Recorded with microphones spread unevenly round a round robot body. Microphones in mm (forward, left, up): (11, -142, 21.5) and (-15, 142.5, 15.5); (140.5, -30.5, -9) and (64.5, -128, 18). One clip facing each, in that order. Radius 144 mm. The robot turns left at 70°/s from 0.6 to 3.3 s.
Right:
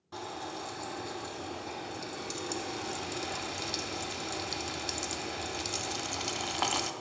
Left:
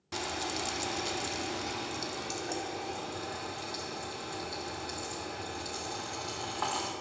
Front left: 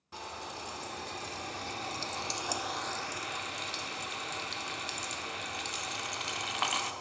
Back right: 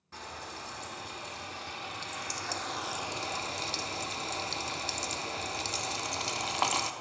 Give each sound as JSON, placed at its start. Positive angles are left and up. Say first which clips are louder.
{"t": 0.1, "sound": "frying", "louder": "left 3 dB, front left 1 dB", "azimuth_deg": 120, "distance_m": 0.6}